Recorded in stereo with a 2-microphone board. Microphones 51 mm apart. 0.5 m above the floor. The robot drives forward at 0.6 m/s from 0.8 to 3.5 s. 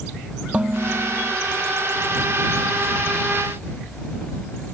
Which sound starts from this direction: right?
Dishes clattering, at 0.5 s.